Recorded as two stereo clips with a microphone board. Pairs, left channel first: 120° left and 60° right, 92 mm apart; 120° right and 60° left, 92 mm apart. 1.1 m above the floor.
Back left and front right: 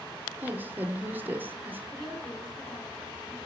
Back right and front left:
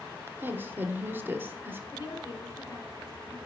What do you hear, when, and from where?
0.4 s a woman speaking: straight ahead, 0.8 m
1.9 s a woman speaking: 170° right, 4.5 m